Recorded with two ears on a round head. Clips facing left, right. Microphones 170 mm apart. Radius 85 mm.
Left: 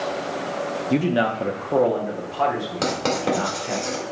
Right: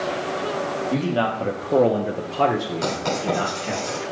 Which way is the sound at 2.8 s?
70° left (ahead or behind).